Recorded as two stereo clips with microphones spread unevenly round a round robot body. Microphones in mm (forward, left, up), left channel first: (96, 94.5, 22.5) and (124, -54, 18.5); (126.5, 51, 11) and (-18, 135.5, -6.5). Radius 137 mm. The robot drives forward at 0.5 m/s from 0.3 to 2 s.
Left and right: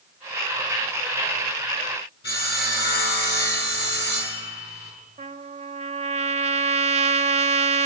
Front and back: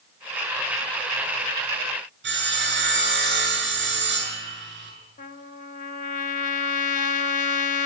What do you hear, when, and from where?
2.2 s sawing: 150° left, 7 m
5.2 s a trumpet: 65° right, 1.2 m